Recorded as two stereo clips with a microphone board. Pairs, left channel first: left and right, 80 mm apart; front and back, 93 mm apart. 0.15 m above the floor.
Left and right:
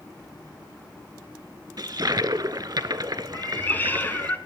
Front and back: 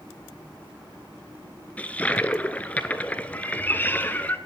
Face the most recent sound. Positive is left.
turn(degrees=50)